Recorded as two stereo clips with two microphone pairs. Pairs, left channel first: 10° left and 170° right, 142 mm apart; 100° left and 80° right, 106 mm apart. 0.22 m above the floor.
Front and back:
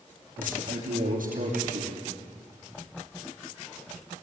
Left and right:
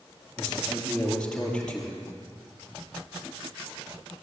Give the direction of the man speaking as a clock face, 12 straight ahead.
6 o'clock.